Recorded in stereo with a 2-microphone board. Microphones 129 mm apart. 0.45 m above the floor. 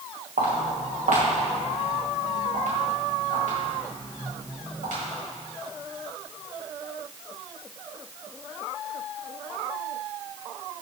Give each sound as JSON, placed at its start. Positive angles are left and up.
{"t": 0.4, "sound": "footsteps", "side_deg": -75, "distance_m": 2.5}